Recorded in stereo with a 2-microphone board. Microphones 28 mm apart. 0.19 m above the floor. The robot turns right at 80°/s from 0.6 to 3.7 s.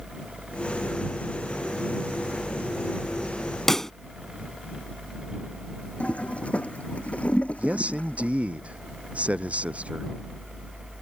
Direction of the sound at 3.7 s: 15° left (ahead or behind).